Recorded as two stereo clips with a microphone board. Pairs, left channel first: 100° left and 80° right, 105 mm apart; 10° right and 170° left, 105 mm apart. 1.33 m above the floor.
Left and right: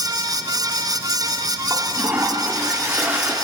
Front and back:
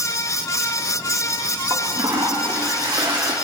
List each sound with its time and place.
1.7 s a toilet flushing: 145° right, 1.7 m